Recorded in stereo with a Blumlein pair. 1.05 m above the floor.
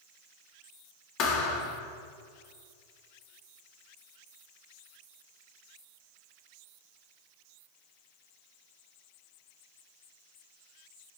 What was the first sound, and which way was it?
A thud, 35° left.